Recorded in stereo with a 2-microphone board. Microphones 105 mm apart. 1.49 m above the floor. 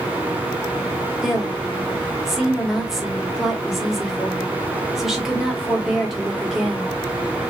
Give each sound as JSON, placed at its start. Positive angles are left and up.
{"t": 1.2, "sound": "a woman speaking", "side_deg": 0, "distance_m": 1.0}